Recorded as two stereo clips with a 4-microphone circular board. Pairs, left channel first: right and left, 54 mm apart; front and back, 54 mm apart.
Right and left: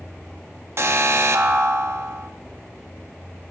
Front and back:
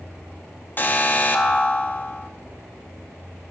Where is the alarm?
50° left, 0.5 m.